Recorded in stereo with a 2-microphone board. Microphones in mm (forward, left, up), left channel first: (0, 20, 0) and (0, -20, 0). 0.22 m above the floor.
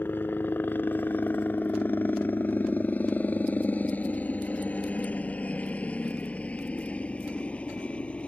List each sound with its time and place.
0.0 s a helicopter: 50° left (ahead or behind); by 8.3 s 25° left (ahead or behind)